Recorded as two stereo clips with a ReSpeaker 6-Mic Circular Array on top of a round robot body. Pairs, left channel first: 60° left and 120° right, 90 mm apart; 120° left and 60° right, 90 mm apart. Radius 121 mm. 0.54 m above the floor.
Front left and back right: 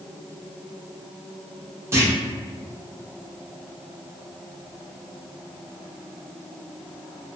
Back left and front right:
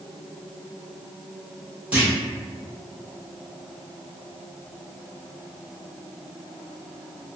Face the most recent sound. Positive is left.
turn(degrees=-120)